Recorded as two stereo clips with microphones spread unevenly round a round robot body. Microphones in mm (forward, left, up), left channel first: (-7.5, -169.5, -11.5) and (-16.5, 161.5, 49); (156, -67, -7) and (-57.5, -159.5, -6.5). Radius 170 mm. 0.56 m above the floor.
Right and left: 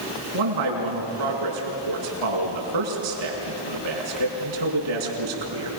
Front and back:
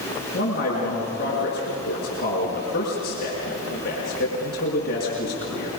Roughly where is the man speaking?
Left.